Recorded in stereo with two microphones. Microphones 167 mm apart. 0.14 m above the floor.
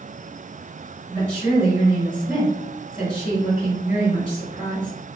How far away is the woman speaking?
About 2.0 m.